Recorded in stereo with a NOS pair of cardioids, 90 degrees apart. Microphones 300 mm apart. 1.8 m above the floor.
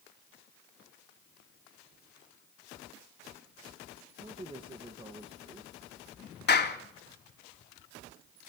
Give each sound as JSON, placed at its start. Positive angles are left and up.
{"t": 4.2, "sound": "a man speaking", "azimuth_deg": -20, "distance_m": 2.0}
{"t": 6.5, "sound": "a clap", "azimuth_deg": 35, "distance_m": 3.5}